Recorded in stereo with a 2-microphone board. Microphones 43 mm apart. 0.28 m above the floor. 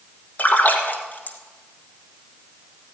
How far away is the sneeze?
No sneeze in this recording.